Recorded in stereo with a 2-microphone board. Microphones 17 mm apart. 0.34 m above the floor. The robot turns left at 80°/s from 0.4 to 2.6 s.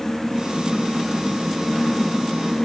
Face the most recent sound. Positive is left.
No sound to turn to.